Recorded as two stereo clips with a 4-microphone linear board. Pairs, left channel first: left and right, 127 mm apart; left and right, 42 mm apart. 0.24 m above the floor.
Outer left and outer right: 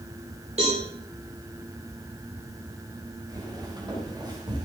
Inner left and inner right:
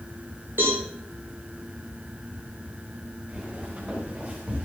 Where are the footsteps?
35° right (ahead or behind), 7 m.